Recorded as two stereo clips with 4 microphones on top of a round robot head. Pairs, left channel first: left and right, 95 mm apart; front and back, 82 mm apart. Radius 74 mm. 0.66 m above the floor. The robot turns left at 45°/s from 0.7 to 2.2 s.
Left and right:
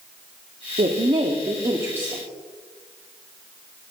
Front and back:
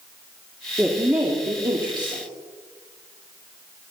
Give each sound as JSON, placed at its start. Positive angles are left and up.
{"t": 0.8, "sound": "a woman speaking", "azimuth_deg": -100, "distance_m": 1.4}